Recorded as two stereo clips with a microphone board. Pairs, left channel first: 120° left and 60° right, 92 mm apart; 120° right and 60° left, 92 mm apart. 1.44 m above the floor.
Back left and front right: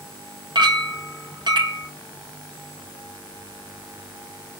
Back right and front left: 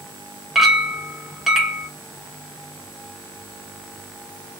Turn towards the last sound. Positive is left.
turn(degrees=-25)